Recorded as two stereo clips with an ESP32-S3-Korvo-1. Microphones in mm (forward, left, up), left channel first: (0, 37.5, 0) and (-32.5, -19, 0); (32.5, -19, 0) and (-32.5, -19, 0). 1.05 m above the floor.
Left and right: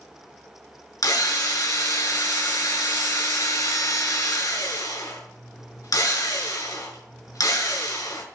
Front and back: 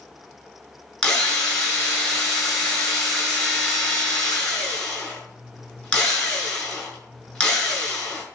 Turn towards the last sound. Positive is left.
turn(degrees=70)